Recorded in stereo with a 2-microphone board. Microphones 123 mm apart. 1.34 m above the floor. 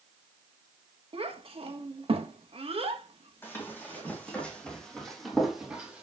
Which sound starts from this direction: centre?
Running footsteps, at 3.4 s.